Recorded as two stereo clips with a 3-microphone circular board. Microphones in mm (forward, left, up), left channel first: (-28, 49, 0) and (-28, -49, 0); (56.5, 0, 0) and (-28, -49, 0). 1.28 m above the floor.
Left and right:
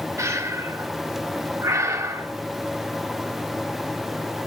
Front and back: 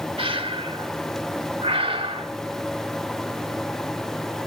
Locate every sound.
0.2 s breathing: 150° right, 1.5 m